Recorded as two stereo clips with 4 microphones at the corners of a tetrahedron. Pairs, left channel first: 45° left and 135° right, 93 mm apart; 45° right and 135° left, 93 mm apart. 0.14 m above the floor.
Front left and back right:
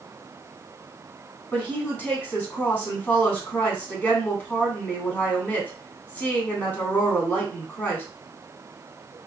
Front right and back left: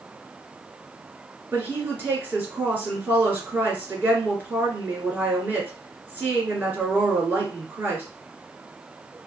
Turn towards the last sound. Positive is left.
turn(degrees=95)